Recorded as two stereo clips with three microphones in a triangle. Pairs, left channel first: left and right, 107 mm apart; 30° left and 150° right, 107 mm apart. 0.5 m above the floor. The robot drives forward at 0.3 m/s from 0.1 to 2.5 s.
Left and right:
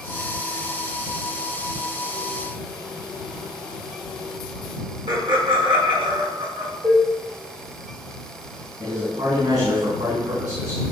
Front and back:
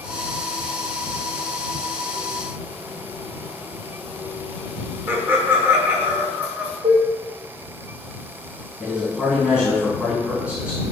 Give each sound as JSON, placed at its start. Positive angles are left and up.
{"t": 5.1, "sound": "laughter", "azimuth_deg": -85, "distance_m": 1.5}
{"t": 6.8, "sound": "dishes clattering", "azimuth_deg": 180, "distance_m": 1.5}
{"t": 8.8, "sound": "a man speaking", "azimuth_deg": -75, "distance_m": 3.5}